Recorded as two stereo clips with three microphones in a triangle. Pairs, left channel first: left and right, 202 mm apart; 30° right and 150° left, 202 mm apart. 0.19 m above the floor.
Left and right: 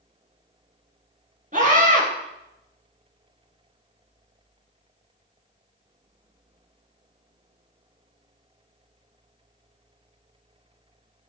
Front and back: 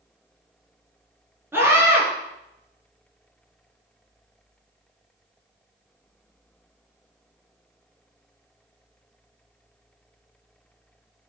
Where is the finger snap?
No finger snap in this recording.